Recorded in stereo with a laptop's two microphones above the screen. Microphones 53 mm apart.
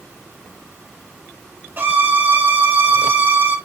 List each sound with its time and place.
1.8 s a violin: 35° right (ahead or behind), 1.2 m